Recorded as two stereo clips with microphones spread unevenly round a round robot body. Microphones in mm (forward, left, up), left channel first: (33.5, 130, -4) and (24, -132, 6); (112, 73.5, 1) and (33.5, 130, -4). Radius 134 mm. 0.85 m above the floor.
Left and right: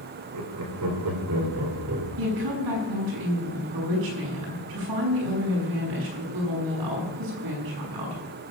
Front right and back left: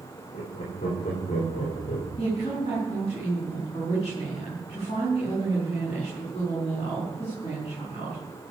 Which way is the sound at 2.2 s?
95° right.